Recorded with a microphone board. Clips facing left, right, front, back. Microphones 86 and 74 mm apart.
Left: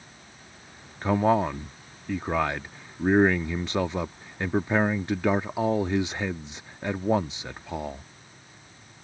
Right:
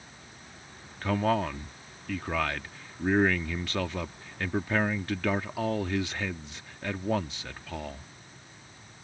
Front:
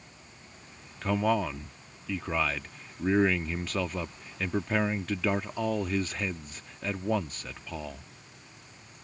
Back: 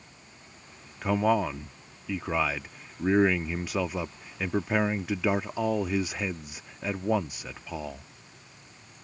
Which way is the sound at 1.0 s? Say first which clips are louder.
Left 5 dB, back 2 dB; 115° left.